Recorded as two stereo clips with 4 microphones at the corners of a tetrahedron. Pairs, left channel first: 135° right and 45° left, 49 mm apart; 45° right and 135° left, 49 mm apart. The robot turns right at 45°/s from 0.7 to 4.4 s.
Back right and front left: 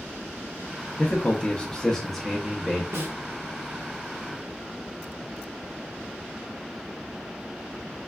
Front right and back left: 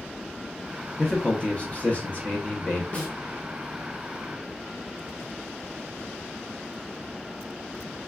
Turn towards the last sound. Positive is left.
turn(degrees=80)